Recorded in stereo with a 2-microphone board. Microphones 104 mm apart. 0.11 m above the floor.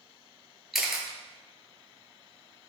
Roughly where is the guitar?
No guitar in this recording.